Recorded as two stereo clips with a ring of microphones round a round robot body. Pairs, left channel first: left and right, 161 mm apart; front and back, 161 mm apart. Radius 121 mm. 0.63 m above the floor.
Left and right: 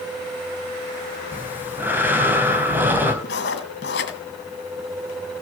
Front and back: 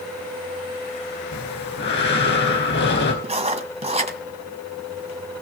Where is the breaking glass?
No breaking glass in this recording.